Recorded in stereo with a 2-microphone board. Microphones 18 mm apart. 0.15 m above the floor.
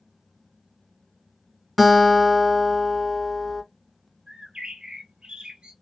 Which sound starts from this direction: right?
A bird, at 4.3 s.